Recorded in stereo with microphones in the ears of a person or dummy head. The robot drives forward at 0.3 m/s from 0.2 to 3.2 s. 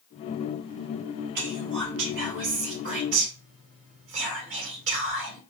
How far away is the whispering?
About 2.5 m.